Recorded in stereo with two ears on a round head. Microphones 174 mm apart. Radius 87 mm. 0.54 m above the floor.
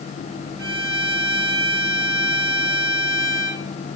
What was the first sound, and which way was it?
A violin, 55° right (ahead or behind).